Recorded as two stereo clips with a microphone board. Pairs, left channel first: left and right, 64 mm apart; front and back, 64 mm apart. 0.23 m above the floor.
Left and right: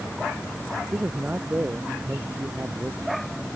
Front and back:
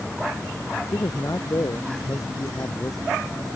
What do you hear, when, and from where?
0.9 s a man speaking: 30° right